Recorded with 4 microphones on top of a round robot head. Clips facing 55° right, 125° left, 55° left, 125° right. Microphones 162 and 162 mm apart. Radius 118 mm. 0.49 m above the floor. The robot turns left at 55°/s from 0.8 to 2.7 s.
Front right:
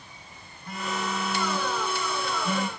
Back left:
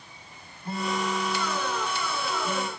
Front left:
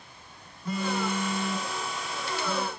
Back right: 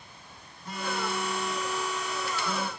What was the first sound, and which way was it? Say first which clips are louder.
A phone buzzing: back left 3 dB, front left 4 dB; 60° left.